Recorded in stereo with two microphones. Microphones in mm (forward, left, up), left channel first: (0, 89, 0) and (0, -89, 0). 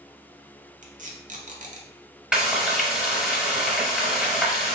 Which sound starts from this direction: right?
Tape being pulled, at 0.8 s.